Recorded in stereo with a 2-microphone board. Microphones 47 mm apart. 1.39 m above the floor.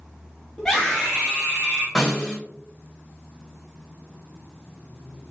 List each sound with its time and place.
0.6 s a scream: 15° left (ahead or behind), 0.7 m; by 1.9 s 20° right (ahead or behind), 1.8 m
1.9 s a snare drum: 5° left (ahead or behind), 1.6 m